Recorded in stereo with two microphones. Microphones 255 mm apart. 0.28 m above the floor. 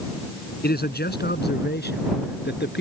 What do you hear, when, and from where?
0.6 s a man speaking: 40° left (ahead or behind); by 2.8 s 45° left (ahead or behind)